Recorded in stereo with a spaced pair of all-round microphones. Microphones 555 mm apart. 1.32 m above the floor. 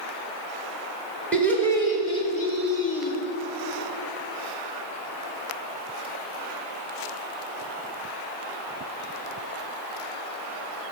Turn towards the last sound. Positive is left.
turn(degrees=30)  # may be behind; listen again after turning